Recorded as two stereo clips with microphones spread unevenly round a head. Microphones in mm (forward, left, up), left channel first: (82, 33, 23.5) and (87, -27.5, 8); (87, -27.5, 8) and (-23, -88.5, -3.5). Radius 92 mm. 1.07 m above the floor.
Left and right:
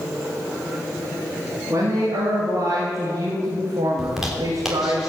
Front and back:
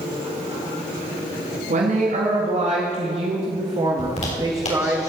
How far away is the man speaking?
About 2 m.